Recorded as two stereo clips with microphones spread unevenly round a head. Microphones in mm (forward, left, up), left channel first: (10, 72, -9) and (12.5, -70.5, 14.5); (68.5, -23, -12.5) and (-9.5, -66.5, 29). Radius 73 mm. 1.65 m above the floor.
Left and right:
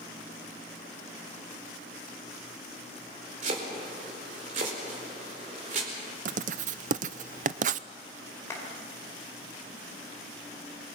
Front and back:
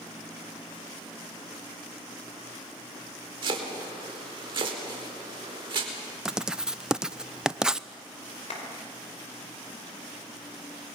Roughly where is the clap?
Ahead.